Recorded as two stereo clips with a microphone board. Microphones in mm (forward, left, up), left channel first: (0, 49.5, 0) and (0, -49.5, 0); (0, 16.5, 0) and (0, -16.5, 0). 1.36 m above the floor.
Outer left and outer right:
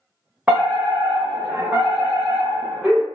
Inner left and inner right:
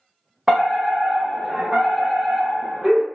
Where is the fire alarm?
15° right (ahead or behind), 1.1 m.